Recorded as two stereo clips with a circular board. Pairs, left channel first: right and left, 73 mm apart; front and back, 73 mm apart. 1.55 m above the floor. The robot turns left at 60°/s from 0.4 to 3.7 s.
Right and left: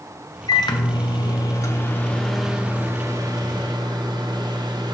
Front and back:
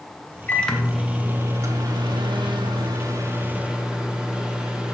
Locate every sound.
0.5 s a microwave: 65° right, 0.8 m; by 5.0 s 100° left, 0.8 m